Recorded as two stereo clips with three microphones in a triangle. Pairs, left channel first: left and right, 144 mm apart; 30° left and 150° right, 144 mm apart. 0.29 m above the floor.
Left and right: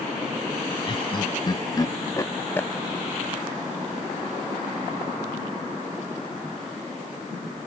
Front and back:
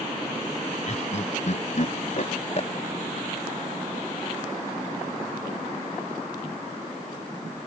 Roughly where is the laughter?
Ahead left.